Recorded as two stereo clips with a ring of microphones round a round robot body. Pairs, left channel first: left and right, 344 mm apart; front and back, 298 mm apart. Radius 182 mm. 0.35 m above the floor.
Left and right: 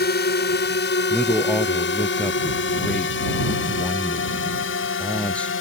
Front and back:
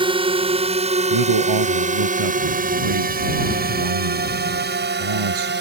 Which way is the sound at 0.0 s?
120° left.